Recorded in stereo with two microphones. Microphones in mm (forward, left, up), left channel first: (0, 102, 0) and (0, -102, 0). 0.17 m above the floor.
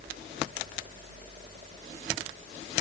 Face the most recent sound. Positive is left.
No sound to turn to.